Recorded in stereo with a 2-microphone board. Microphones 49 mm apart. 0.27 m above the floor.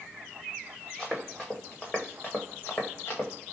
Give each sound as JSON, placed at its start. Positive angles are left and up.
{"t": 1.0, "sound": "running footsteps", "side_deg": 0, "distance_m": 1.7}